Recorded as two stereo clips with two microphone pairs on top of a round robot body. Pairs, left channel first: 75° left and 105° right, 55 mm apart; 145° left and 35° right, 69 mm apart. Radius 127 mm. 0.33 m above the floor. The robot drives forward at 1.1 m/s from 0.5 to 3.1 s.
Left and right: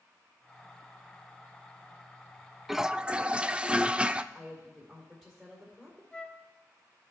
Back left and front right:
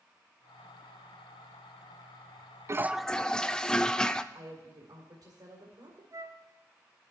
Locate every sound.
2.7 s a toilet flushing: 45° right, 0.5 m; by 4.2 s 150° right, 0.6 m
4.3 s a woman speaking: 40° right, 2 m
6.1 s a flute: 5° right, 0.7 m